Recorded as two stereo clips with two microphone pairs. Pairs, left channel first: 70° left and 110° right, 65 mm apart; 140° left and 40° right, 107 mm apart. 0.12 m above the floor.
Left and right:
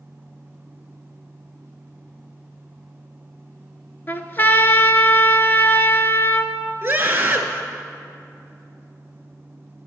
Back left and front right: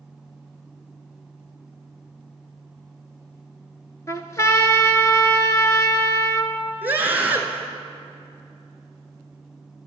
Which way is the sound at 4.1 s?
95° left.